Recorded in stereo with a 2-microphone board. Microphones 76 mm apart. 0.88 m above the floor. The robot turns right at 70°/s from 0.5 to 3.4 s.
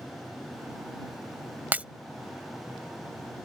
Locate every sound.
1.7 s breaking glass: 25° right (ahead or behind); by 1.9 s 15° right (ahead or behind)